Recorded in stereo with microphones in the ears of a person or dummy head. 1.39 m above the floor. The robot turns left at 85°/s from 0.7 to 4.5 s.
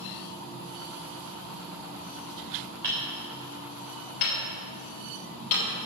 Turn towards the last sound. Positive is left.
turn(degrees=50)  # may be behind; listen again after turning